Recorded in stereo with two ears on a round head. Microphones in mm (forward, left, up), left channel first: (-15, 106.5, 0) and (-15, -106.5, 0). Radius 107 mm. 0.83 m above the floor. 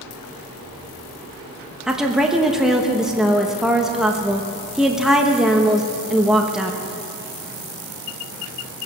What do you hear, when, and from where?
1.9 s a woman speaking: centre (ahead or behind), 1.0 m